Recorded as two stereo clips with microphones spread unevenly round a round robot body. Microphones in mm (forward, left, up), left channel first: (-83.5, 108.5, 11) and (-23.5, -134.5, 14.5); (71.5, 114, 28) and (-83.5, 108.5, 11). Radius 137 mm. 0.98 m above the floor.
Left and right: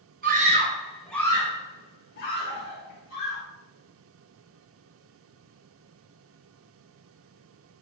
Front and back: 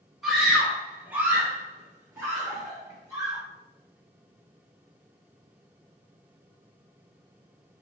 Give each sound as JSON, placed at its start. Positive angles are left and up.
{"t": 0.2, "sound": "a scream", "azimuth_deg": -100, "distance_m": 0.9}